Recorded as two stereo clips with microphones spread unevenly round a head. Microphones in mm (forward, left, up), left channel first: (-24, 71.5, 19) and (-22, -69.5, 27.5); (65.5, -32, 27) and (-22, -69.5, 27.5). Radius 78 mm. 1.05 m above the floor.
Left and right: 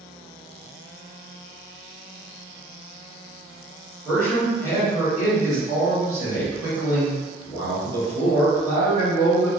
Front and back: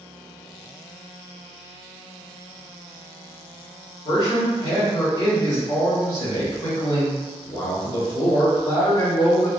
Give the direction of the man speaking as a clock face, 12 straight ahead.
12 o'clock.